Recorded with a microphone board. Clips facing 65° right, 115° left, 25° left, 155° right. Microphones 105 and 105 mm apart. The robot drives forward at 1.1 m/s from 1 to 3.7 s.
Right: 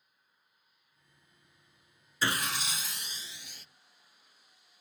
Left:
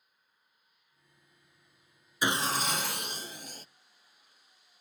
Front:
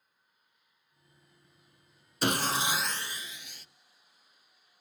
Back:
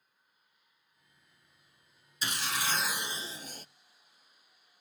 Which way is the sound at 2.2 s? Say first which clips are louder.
Left 3 dB, front 6 dB; 40° left.